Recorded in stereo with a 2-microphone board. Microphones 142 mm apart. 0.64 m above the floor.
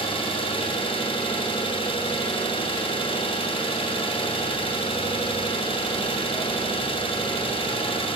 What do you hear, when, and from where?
0.0 s an engine running: 35° left (ahead or behind), 0.7 m